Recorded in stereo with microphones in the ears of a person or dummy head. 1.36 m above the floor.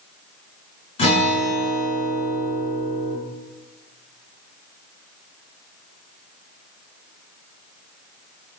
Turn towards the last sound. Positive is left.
turn(degrees=35)  # may be behind; listen again after turning